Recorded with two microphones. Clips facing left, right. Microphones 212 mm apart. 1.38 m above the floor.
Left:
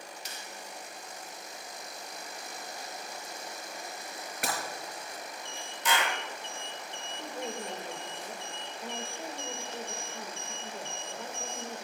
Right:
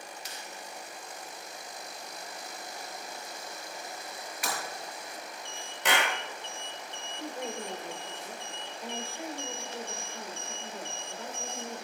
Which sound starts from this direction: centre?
A woman speaking, at 7.2 s.